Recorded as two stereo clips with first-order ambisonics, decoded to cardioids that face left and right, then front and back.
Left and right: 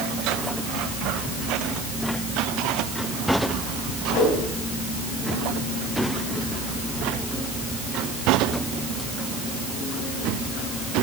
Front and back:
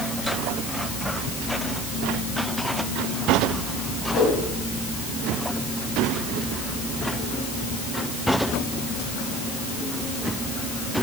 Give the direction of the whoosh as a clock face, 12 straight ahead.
10 o'clock.